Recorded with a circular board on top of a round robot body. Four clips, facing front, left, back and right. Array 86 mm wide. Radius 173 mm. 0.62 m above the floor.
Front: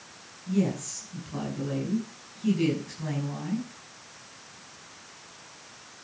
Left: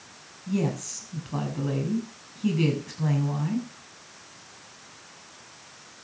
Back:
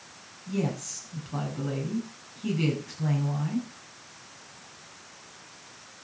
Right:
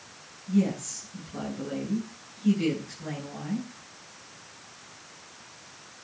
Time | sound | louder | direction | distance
0.5 | a woman speaking | right 2 dB, front 3 dB | 105° left | 7.5 m